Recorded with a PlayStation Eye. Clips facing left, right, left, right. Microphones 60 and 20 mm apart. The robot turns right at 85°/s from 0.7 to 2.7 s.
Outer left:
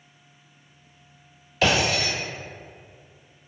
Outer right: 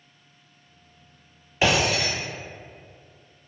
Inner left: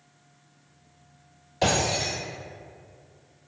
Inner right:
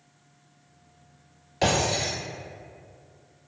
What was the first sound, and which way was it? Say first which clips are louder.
Breaking glass: even, even; 20° right (ahead or behind).